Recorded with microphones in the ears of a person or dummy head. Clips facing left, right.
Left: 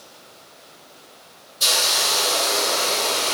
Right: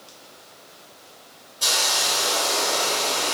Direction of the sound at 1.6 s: 40° left (ahead or behind).